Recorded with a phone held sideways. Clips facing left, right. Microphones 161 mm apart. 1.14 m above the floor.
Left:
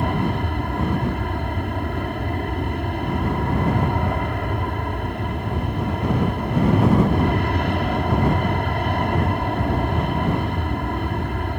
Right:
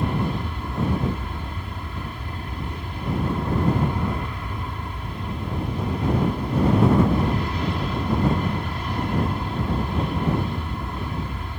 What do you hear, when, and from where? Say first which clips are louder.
0.0 s an aircraft: left 3 dB; 65° left (ahead or behind)